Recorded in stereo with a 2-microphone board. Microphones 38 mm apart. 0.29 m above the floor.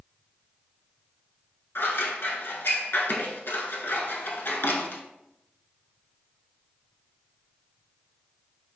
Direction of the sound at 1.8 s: 75° left (ahead or behind).